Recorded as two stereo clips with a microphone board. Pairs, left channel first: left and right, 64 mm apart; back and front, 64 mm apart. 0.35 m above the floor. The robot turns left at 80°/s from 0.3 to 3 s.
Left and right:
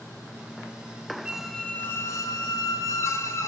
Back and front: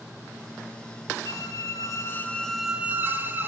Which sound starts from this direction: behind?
A squeak, at 1.2 s.